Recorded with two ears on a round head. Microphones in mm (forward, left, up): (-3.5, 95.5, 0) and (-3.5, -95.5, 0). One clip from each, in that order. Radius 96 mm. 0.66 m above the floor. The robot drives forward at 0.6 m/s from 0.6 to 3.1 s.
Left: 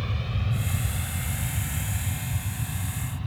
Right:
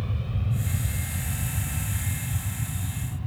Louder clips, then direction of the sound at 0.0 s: Left 3 dB; 55° left (ahead or behind).